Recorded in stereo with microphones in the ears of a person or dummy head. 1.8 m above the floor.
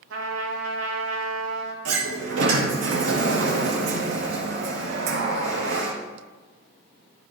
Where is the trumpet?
70° right (ahead or behind), 0.9 m.